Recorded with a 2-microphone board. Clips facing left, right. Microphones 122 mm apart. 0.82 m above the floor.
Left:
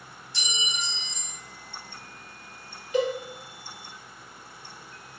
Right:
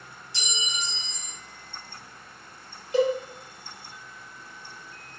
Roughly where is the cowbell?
Right.